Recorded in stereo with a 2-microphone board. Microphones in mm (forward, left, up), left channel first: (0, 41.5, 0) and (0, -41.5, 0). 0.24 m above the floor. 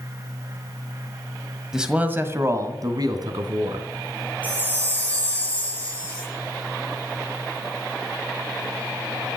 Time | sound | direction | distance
1.7 | a man speaking | 5° right (ahead or behind) | 1.5 m
4.4 | a chime | 15° left (ahead or behind) | 6 m